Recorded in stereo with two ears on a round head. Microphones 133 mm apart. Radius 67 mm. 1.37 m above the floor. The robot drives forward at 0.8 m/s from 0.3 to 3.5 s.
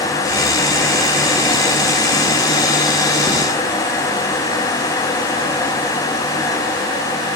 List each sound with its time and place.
Only background noise.